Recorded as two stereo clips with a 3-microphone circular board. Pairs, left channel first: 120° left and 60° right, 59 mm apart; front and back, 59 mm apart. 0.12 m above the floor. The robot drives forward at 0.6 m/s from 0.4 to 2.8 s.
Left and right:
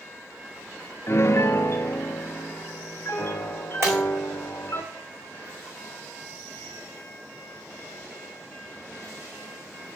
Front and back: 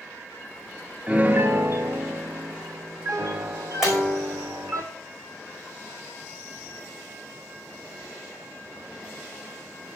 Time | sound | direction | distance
1.1 | a piano | 120° left | 0.5 m
3.8 | breaking glass | 95° right | 4.5 m